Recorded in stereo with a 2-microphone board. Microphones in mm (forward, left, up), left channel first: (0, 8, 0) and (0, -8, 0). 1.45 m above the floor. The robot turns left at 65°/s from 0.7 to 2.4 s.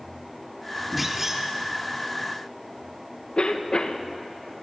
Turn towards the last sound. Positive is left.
turn(degrees=75)  # may be behind; listen again after turning